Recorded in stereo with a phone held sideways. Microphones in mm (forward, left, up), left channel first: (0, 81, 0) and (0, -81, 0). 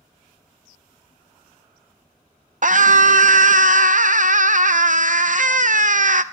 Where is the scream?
60° right (ahead or behind), 0.8 m.